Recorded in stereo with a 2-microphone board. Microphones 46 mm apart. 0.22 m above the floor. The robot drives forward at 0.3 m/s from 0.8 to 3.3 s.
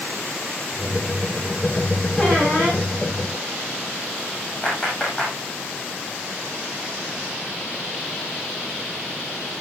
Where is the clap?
20° left (ahead or behind), 9 m.